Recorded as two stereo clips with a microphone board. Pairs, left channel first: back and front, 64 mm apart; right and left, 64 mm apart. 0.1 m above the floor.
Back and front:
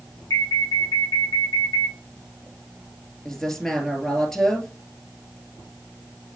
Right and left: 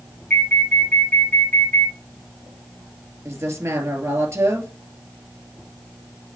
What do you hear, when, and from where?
0.3 s an alarm: 155° right, 5 m
3.2 s a woman speaking: 100° left, 2 m